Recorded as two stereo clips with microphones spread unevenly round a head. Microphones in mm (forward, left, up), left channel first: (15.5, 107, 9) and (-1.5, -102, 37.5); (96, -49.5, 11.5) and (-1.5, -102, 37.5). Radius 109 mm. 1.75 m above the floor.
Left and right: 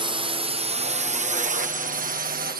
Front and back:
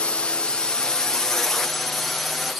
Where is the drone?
30° right; by 2.6 s 50° right.